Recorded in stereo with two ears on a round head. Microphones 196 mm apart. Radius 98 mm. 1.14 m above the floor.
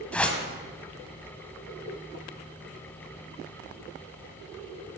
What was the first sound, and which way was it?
A whoosh, 5° left (ahead or behind).